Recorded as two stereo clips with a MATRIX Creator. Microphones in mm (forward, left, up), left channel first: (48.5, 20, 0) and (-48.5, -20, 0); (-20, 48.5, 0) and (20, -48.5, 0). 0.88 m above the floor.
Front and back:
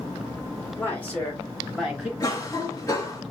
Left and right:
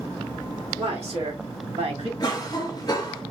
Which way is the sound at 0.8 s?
50° right.